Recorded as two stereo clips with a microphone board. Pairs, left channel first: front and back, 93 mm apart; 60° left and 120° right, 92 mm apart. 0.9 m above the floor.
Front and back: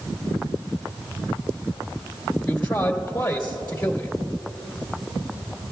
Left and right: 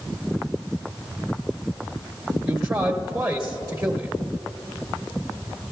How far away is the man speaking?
About 1.3 m.